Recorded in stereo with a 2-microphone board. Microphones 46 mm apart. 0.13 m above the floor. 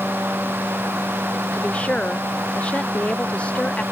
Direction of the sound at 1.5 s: 30° left (ahead or behind).